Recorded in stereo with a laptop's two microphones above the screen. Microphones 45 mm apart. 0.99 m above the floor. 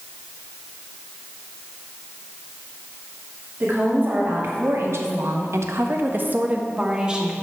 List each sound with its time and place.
3.6 s a woman speaking: 40° right (ahead or behind), 1.9 m; by 7.3 s 15° right (ahead or behind), 1.6 m